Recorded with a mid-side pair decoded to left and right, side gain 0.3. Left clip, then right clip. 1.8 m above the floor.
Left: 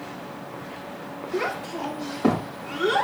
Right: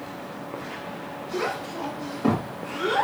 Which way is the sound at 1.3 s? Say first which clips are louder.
Left 1 dB; 45° left.